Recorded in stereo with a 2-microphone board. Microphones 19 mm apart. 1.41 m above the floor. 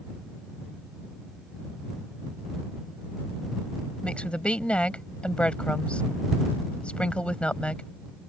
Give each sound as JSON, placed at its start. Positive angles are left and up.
{"t": 4.0, "sound": "a woman speaking", "side_deg": 80}